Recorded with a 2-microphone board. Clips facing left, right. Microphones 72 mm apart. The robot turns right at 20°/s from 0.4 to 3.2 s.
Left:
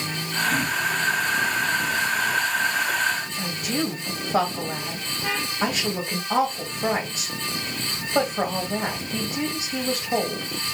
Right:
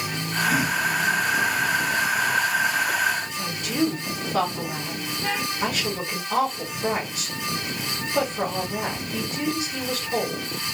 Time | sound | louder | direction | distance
3.3 | a woman speaking | left 1 dB | 35° left (ahead or behind) | 1.9 m